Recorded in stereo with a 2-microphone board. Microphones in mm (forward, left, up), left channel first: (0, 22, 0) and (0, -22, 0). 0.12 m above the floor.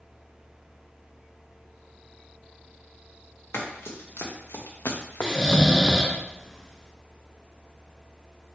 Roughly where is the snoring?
Centre.